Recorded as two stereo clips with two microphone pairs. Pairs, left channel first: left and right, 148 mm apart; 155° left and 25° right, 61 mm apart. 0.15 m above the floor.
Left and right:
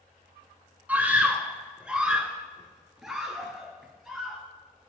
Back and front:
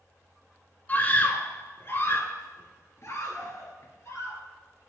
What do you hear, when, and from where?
0.9 s a scream: 165° right, 1.9 m; by 4.4 s straight behind, 3.5 m